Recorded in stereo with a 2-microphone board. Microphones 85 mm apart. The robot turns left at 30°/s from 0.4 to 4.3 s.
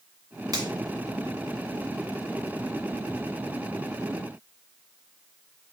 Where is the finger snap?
50° right (ahead or behind), 1.2 m.